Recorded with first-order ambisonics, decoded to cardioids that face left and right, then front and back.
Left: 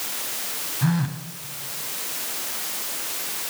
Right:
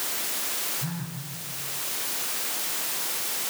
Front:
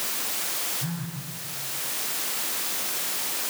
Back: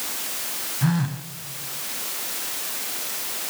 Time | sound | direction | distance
0.8 | a phone buzzing | 135° left | 1.9 m